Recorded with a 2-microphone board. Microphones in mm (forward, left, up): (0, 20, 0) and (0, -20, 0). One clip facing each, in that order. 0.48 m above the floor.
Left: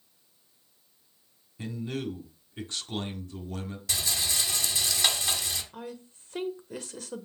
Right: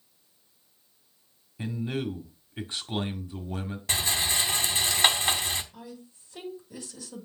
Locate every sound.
1.6 s a man speaking: 20° right (ahead or behind), 1.1 m
3.9 s a rattle: 35° right (ahead or behind), 0.9 m
5.7 s a woman speaking: 55° left (ahead or behind), 1.3 m